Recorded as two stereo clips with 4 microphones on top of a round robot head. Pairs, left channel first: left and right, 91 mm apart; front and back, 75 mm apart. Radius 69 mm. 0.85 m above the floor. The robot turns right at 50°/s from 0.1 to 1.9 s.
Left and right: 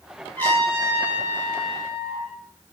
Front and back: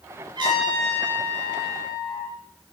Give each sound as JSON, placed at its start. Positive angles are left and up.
{"t": 0.3, "sound": "a trumpet", "azimuth_deg": 165, "distance_m": 6.5}